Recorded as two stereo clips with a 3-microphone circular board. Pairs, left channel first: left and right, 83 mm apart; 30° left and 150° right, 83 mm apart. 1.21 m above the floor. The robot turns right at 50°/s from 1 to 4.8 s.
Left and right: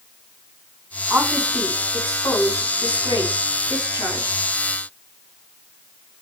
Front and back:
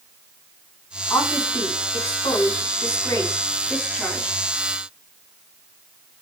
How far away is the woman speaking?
About 6 m.